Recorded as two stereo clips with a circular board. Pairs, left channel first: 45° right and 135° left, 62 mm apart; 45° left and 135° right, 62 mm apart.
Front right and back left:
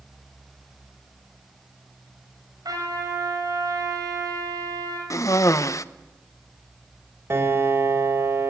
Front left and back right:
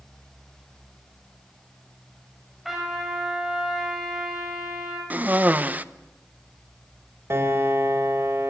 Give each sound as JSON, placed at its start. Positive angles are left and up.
{"t": 2.6, "sound": "a trumpet", "azimuth_deg": 140, "distance_m": 6.5}
{"t": 5.1, "sound": "a cough", "azimuth_deg": -75, "distance_m": 0.8}
{"t": 7.3, "sound": "a piano", "azimuth_deg": 180, "distance_m": 2.5}